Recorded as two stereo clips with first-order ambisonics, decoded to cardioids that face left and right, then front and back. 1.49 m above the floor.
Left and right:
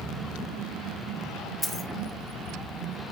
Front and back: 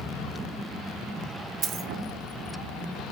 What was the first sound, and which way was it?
A dropped coin, 175° right.